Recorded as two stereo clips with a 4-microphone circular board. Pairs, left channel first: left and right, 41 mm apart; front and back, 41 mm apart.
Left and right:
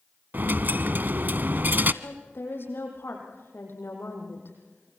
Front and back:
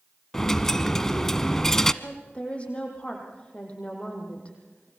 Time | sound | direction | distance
0.3 | a dropped coin | 75° right | 0.8 m
2.0 | a woman speaking | 65° left | 7 m